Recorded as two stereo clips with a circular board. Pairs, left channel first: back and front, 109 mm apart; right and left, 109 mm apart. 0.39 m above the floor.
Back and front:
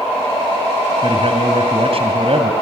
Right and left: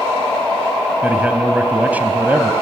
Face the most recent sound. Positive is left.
turn(degrees=15)